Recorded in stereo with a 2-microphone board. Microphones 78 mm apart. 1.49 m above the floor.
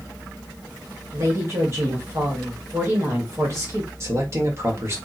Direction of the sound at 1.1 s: 40° right (ahead or behind).